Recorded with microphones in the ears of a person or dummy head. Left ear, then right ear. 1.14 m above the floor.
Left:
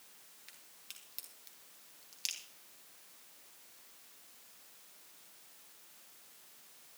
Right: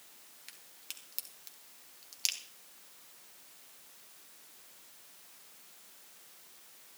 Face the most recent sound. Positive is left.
turn(degrees=-10)  # may be behind; listen again after turning